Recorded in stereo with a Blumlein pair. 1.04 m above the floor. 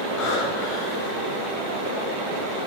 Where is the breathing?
45° left, 2.5 m.